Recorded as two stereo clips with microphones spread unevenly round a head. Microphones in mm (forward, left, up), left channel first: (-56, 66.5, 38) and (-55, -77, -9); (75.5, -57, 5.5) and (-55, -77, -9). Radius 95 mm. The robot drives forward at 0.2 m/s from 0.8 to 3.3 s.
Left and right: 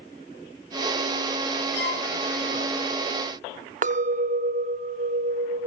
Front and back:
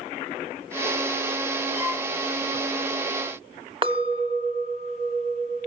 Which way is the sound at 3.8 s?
120° right.